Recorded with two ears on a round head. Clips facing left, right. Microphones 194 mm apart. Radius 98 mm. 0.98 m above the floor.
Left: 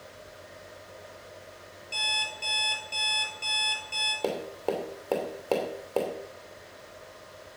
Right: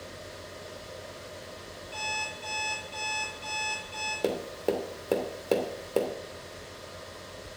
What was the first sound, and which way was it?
An alarm clock, 50° left (ahead or behind).